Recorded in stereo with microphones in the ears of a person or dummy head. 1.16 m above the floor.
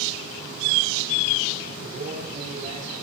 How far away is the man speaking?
About 9.5 m.